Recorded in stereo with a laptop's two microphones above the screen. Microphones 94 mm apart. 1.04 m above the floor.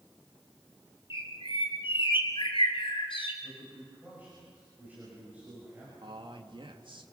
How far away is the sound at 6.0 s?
About 2.0 m.